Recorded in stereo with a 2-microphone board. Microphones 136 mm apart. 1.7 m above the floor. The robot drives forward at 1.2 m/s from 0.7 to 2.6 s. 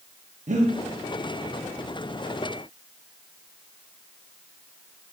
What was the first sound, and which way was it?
Breathing, 60° right (ahead or behind).